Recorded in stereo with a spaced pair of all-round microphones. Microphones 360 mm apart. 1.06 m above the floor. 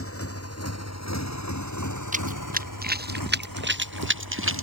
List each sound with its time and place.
0.0 s a motorcycle: 35° left (ahead or behind); by 4.6 s 70° left (ahead or behind)
2.1 s running footsteps: 20° right (ahead or behind); by 4.6 s 35° right (ahead or behind)